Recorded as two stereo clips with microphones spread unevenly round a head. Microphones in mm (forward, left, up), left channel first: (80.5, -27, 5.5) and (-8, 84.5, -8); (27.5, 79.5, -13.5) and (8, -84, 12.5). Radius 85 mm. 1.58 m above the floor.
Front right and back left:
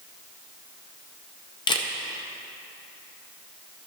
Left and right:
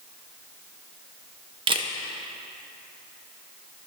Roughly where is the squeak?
I don't hear a squeak.